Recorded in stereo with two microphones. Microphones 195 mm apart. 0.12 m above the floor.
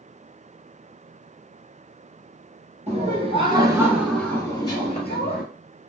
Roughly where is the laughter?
Right.